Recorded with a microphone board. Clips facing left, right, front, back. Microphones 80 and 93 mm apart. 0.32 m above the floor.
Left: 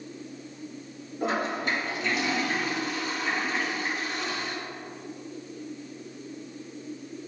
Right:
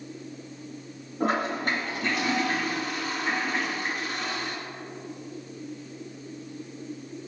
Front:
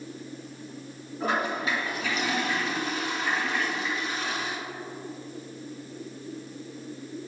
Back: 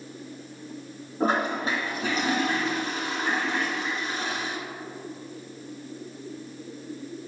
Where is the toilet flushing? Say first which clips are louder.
Right 2 dB, back 3 dB; 125° right, 2.5 m.